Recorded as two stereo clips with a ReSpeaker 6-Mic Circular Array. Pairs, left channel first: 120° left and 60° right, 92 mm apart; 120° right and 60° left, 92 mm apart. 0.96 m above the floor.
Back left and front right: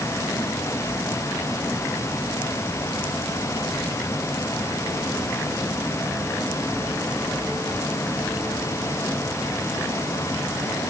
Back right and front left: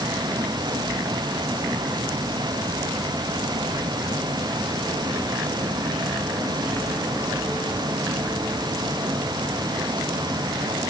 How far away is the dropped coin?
I don't hear a dropped coin.